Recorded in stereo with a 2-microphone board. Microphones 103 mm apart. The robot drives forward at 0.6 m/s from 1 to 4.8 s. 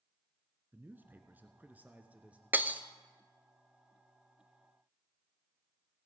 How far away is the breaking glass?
About 0.7 m.